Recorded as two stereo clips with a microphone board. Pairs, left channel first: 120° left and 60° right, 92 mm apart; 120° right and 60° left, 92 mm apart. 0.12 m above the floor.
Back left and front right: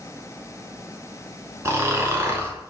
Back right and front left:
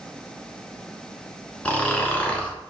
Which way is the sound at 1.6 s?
60° right.